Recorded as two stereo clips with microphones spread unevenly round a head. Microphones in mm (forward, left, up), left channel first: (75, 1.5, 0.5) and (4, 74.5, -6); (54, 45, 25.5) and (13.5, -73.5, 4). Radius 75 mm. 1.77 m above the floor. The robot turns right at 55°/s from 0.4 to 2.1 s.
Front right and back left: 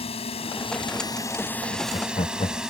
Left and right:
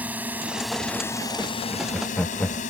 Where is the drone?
30° right; by 2.7 s 50° left.